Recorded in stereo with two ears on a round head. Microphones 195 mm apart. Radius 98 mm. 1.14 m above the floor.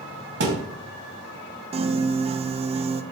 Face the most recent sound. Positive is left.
turn(degrees=-25)  # may be behind; listen again after turning